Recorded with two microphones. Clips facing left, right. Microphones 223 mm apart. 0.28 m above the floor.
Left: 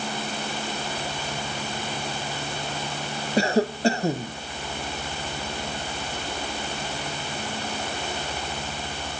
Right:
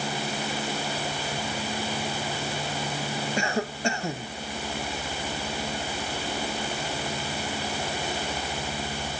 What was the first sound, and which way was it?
A cough, 35° left (ahead or behind).